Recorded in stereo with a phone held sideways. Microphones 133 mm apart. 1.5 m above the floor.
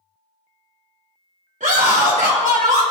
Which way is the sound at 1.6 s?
80° right.